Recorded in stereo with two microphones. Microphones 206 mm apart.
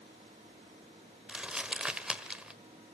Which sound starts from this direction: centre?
Crumpling, at 1.3 s.